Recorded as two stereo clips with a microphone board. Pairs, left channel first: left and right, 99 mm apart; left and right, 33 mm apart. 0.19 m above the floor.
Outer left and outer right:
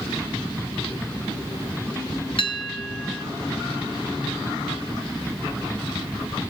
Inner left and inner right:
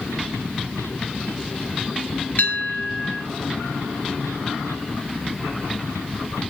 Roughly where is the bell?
Left.